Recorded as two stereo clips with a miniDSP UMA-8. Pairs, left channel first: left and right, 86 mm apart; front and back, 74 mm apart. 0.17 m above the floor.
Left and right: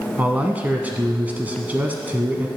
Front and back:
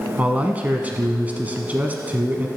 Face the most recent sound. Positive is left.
turn(degrees=-140)